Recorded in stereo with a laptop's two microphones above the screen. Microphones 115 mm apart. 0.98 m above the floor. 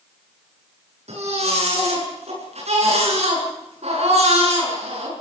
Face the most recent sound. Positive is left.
turn(degrees=-65)  # may be behind; listen again after turning